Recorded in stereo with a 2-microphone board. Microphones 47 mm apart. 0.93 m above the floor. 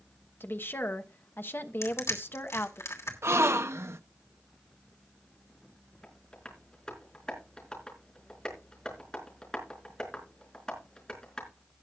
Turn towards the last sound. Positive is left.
turn(degrees=15)  # may be behind; listen again after turning